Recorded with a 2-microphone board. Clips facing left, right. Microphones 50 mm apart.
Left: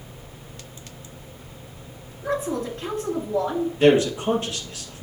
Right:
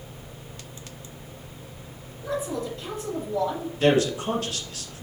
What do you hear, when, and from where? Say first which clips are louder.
2.2 s a woman speaking: left 3 dB; 40° left (ahead or behind), 2.0 m
3.8 s a man speaking: left 4 dB; 25° left (ahead or behind), 2.5 m